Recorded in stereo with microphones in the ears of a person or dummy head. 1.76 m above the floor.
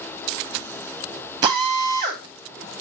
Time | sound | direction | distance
1.4 | a drill | 25° right (ahead or behind) | 1.8 m